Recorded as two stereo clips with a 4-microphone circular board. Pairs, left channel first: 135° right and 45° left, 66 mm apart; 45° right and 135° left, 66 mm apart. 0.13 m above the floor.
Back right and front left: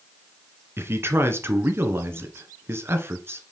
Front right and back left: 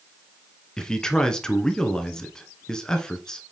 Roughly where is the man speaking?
Ahead left.